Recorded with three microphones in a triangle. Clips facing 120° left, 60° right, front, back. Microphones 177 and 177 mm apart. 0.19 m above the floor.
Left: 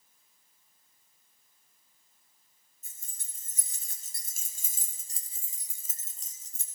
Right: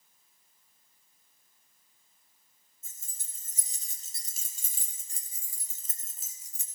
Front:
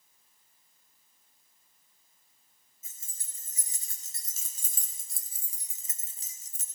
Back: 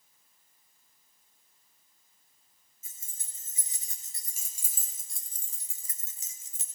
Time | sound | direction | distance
2.8 | keys jangling | 120° left | 3 m